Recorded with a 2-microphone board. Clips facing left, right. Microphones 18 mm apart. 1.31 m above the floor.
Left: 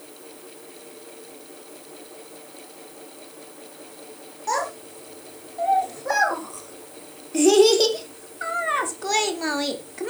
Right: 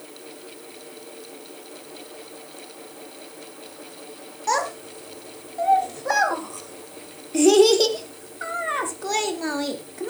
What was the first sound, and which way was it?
A child speaking, 30° right (ahead or behind).